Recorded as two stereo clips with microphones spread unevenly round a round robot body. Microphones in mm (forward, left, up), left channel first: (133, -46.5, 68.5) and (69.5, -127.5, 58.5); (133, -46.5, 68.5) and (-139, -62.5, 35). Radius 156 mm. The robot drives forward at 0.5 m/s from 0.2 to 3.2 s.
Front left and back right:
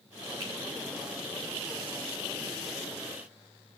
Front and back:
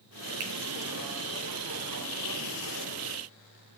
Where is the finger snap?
165° left, 4.5 m.